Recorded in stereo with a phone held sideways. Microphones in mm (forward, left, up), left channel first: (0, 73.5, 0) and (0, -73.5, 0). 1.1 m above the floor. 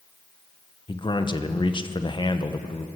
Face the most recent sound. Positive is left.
turn(degrees=35)  # may be behind; listen again after turning